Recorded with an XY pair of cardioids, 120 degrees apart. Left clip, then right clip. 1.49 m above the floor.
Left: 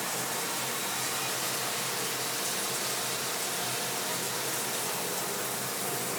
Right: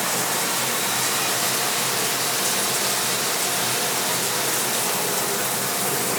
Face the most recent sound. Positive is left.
turn(degrees=-55)